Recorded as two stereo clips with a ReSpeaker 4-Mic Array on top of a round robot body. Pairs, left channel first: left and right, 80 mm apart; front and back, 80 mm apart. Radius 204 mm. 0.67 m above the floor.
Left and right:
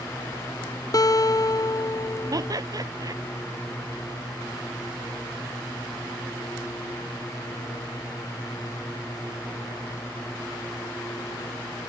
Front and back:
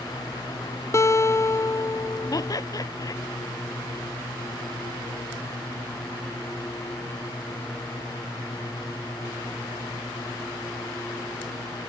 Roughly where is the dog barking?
No dog barking in this recording.